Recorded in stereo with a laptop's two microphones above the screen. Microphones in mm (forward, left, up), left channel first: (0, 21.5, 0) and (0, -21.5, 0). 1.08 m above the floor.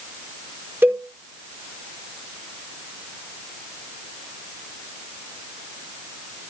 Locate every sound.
0.8 s a cowbell: 50° right (ahead or behind), 5.5 m